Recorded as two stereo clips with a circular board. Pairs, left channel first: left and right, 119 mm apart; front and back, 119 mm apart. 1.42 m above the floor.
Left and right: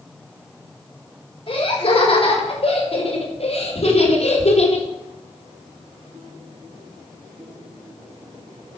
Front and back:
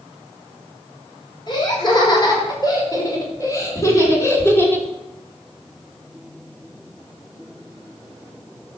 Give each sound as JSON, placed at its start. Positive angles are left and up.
{"t": 1.5, "sound": "laughter", "azimuth_deg": 50, "distance_m": 7.0}